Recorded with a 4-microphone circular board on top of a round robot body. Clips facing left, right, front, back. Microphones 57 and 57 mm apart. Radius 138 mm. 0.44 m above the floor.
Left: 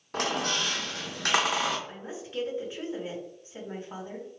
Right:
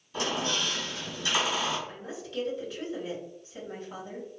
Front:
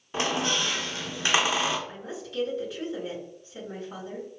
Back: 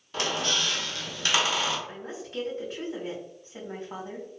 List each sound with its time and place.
0.1 s a squeak: 70° left, 0.6 m
1.9 s a woman speaking: 145° left, 1.8 m